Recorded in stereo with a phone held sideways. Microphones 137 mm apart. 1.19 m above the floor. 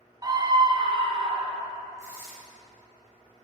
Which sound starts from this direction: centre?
Tearing paper, at 2.0 s.